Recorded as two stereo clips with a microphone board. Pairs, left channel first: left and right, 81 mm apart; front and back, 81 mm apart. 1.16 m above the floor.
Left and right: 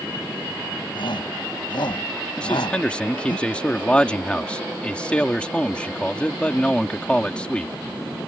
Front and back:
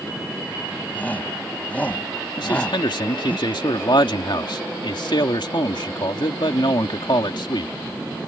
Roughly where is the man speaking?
Ahead.